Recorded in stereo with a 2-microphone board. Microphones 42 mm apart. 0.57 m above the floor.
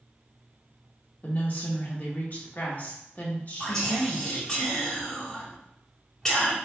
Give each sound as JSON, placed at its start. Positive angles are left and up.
{"t": 1.2, "sound": "a woman speaking", "side_deg": 40, "distance_m": 1.1}
{"t": 3.6, "sound": "whispering", "side_deg": 15, "distance_m": 1.5}